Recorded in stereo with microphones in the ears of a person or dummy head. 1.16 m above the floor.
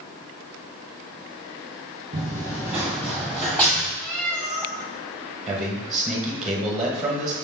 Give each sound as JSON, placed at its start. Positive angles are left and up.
{"t": 2.1, "sound": "running footsteps", "side_deg": -20, "distance_m": 1.2}
{"t": 4.0, "sound": "a cat meowing", "side_deg": 5, "distance_m": 1.4}
{"t": 5.5, "sound": "a man speaking", "side_deg": -5, "distance_m": 0.9}